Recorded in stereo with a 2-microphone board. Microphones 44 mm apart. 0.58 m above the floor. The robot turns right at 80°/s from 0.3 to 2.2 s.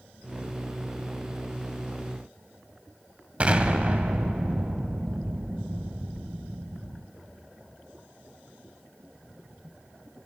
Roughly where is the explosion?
Right.